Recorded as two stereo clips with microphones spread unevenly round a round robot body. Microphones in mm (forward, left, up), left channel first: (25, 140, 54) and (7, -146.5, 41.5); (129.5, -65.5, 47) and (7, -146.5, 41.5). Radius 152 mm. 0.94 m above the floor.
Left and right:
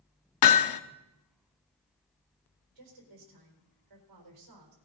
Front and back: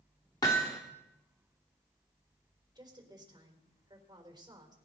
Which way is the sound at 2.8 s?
85° right.